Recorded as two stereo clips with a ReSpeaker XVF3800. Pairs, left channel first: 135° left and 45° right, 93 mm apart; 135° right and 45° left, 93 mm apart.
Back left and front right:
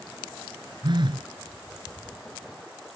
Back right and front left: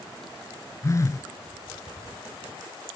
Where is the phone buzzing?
80° right.